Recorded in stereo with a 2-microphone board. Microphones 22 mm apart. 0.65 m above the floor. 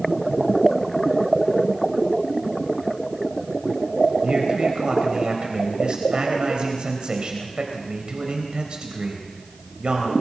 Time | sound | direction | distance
4.2 | a man speaking | 50° right (ahead or behind) | 3.5 m